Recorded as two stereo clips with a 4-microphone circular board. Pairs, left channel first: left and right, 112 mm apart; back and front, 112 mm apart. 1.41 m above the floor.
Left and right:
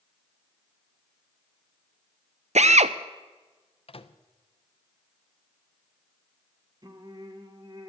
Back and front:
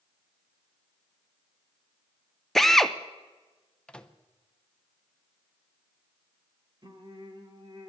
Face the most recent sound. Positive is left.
turn(degrees=-45)